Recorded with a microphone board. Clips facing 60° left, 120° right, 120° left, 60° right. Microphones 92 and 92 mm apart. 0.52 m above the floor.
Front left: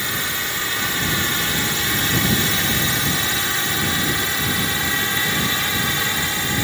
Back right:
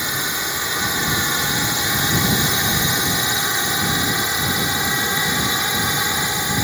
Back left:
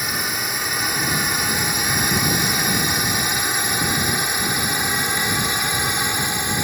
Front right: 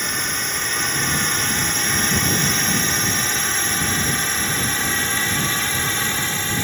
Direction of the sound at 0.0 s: 165° right.